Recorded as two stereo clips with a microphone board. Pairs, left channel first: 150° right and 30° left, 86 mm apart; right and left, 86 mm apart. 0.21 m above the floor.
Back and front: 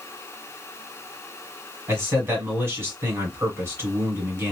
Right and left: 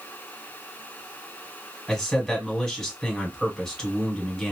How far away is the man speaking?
About 1.5 m.